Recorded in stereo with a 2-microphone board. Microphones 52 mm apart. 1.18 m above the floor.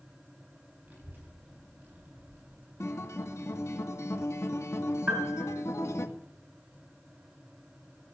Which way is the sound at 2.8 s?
70° left (ahead or behind).